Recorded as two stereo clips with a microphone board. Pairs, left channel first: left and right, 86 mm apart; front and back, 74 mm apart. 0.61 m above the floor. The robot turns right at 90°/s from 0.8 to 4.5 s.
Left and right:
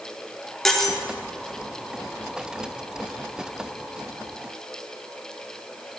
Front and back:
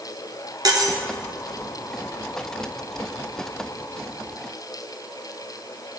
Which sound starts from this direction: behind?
Cutlery clinking, at 0.7 s.